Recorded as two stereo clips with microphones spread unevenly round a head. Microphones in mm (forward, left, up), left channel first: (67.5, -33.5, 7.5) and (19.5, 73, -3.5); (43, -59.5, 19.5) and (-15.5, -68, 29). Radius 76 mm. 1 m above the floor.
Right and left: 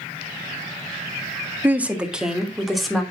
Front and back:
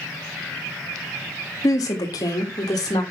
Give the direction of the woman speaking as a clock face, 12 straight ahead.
11 o'clock.